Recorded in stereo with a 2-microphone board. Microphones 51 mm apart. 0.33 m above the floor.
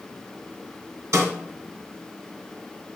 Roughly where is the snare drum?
Right.